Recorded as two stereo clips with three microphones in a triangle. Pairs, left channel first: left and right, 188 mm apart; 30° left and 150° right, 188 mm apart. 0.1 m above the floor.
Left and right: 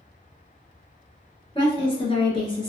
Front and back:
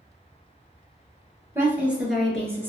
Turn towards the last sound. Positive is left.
turn(degrees=85)